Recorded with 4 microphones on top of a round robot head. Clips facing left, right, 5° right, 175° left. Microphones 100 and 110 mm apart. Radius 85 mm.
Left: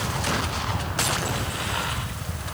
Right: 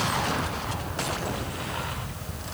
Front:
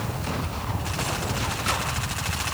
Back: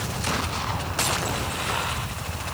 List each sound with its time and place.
Only background noise.